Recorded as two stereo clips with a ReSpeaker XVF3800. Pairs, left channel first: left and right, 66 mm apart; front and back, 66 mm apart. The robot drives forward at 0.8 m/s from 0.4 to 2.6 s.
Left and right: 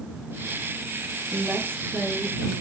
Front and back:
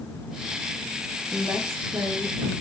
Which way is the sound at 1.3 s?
130° right.